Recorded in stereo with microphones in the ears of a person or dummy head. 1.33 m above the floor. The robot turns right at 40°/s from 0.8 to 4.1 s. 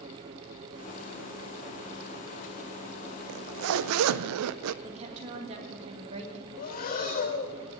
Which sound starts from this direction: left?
Breathing, at 6.6 s.